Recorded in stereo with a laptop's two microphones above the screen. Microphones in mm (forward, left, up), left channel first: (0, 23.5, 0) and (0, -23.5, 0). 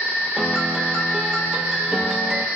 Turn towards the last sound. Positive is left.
turn(degrees=-10)  # may be behind; listen again after turning